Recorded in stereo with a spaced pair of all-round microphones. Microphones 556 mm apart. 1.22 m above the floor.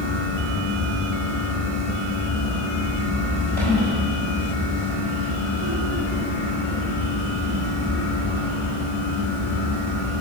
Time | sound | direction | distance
0.0 | a fan | 15° right (ahead or behind) | 5 m